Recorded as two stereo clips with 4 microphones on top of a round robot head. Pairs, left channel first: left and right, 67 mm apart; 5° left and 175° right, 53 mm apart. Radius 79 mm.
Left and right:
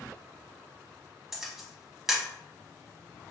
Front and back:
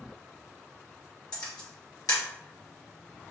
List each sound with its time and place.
1.3 s a camera shutter: 10° right, 1.0 m